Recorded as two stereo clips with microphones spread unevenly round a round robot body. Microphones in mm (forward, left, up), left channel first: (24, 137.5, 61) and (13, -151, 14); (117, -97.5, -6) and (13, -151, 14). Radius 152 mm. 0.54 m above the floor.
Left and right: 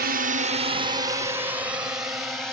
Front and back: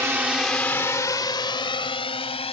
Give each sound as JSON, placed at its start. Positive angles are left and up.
{"t": 0.0, "sound": "a drone", "azimuth_deg": -85}